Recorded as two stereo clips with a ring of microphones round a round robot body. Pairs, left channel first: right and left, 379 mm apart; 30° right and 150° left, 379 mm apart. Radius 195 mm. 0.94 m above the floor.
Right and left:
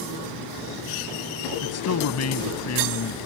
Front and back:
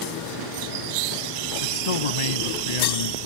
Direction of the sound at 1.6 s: 35° right.